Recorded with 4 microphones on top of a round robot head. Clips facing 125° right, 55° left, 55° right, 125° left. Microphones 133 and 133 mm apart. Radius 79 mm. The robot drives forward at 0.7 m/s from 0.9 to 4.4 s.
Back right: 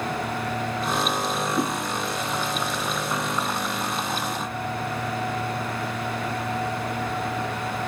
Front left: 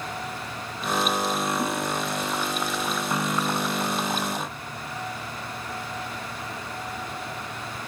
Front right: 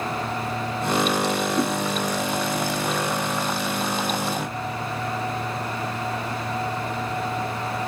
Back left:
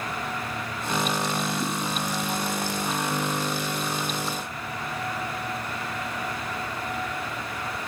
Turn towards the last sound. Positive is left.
turn(degrees=-155)